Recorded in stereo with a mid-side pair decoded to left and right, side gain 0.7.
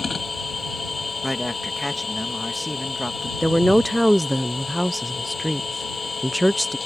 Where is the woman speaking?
Straight ahead.